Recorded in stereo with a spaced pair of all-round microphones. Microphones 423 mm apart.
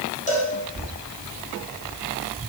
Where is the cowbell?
20° left (ahead or behind), 4.5 m.